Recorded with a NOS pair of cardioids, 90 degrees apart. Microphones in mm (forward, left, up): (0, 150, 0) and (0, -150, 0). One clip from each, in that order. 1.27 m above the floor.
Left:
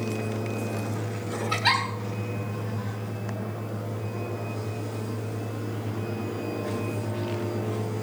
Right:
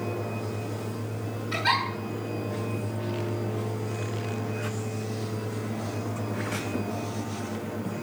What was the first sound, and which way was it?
A giggle, 40° left.